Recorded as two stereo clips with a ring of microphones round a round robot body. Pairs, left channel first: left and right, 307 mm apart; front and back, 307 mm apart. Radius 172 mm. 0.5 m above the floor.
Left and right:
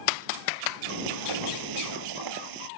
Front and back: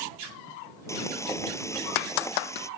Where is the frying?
80° right.